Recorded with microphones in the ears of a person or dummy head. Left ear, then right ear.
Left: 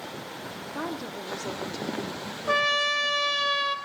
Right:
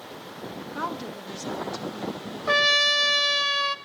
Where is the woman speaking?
70° right (ahead or behind), 1.4 m; by 3.5 s 50° right (ahead or behind), 4.5 m.